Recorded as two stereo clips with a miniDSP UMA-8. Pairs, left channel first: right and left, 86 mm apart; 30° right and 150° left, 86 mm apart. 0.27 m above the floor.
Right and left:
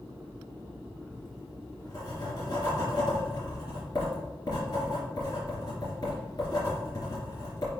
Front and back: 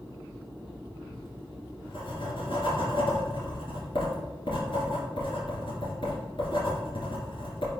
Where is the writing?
50° right, 3 m.